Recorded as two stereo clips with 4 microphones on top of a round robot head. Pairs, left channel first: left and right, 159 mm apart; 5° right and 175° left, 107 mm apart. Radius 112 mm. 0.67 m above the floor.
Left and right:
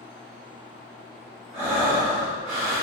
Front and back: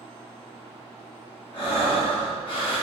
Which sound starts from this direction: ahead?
Breathing, at 1.5 s.